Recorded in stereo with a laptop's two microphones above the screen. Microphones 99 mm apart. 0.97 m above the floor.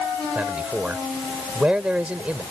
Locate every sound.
0.3 s a man speaking: 10° right (ahead or behind)